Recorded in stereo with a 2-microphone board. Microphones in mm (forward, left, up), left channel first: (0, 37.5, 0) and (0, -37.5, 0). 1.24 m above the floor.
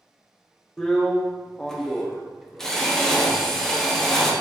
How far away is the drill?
About 0.6 m.